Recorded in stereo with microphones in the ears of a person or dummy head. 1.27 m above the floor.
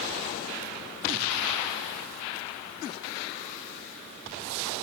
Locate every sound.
Only background noise.